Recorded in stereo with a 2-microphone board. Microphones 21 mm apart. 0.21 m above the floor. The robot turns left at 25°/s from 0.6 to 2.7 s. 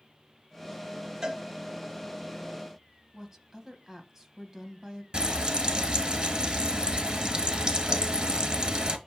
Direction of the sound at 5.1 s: 35° right (ahead or behind).